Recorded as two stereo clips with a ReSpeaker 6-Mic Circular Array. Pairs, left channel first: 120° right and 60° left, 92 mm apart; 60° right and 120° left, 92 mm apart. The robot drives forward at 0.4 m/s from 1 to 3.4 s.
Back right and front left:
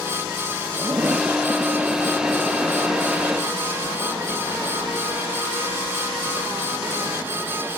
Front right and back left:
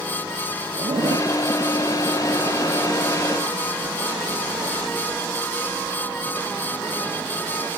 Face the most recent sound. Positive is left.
turn(degrees=155)